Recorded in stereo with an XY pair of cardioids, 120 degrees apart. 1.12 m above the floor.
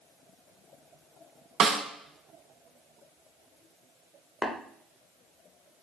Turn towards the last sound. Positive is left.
turn(degrees=25)